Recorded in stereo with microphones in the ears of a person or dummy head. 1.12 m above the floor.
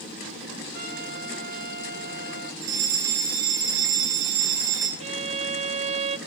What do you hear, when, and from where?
0.7 s a trumpet: 60° right (ahead or behind), 5.5 m
2.6 s a fire alarm: 70° right (ahead or behind), 4 m
5.0 s a violin: 35° right (ahead or behind), 0.7 m